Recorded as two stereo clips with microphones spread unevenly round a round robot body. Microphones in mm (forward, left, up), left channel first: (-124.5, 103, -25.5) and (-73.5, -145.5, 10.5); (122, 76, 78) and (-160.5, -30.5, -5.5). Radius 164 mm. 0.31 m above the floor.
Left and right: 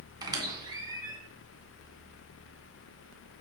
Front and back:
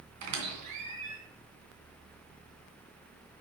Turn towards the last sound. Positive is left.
turn(degrees=-155)